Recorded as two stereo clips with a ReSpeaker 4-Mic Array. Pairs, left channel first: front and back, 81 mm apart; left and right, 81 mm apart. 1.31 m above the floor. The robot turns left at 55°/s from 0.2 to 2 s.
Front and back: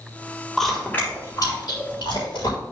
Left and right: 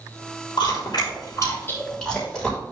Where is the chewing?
90° left, 3.5 m; by 2.6 s 10° left, 3.5 m.